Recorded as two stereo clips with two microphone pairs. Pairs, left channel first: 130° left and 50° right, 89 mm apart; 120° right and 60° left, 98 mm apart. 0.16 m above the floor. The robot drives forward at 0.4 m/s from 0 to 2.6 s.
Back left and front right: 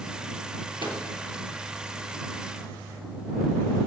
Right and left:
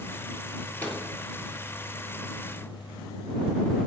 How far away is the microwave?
About 3 m.